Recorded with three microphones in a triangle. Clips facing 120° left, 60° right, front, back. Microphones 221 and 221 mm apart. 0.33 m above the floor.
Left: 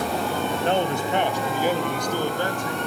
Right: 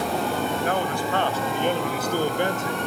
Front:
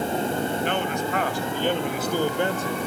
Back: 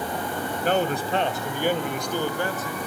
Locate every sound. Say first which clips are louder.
0.6 s a man speaking: left 2 dB, back 2 dB; 170° left, 2.0 m; by 2.9 s 20° right, 1.8 m